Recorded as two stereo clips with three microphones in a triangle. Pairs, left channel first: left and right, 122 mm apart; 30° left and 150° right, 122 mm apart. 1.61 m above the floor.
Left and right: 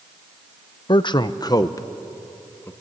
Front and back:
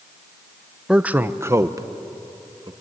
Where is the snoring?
No snoring in this recording.